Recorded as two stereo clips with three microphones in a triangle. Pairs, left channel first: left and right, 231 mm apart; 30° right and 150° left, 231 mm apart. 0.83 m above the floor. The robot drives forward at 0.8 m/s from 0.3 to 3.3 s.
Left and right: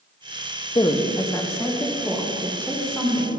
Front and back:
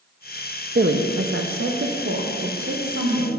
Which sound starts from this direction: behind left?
A woman speaking, at 0.8 s.